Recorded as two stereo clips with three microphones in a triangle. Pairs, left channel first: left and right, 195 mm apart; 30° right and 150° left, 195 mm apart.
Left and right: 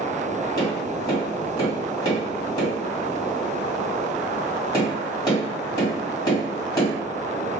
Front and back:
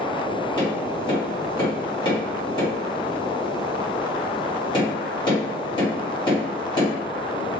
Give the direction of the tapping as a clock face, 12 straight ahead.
11 o'clock.